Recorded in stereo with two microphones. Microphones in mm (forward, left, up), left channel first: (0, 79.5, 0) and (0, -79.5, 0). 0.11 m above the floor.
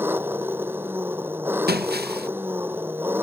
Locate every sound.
0.0 s an engine running: 15° right (ahead or behind)
1.7 s breaking glass: 90° right